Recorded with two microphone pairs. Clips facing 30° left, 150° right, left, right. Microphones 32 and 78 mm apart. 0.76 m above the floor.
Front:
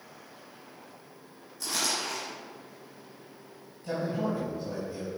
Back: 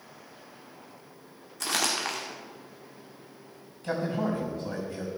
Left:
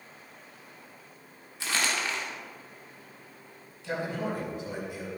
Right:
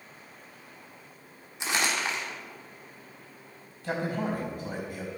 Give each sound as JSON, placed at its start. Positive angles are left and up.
{"t": 1.6, "sound": "crumpling", "azimuth_deg": -155, "distance_m": 2.0}
{"t": 3.8, "sound": "a man speaking", "azimuth_deg": -130, "distance_m": 4.5}